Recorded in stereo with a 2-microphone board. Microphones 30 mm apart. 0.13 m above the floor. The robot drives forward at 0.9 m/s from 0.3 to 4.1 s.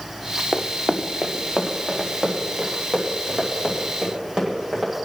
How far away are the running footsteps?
About 0.8 m.